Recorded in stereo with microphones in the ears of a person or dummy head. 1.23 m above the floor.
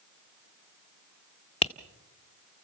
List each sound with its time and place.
1.6 s tapping: 35° left (ahead or behind), 0.7 m